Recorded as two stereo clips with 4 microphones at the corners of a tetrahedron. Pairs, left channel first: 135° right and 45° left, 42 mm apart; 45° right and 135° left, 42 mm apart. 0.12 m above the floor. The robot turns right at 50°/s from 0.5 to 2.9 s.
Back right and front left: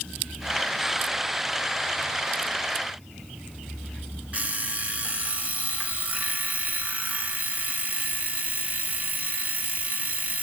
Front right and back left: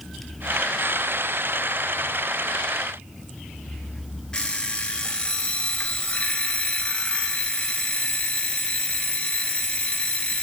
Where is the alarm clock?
15° left, 1.0 m.